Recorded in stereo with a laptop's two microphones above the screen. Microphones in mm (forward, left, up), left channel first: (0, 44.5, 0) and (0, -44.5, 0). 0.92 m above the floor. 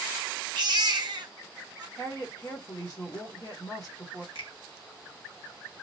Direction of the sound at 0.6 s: 50° right (ahead or behind).